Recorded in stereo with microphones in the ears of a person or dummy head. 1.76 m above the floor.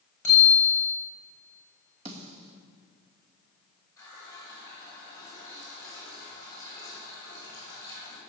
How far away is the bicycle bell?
About 7 m.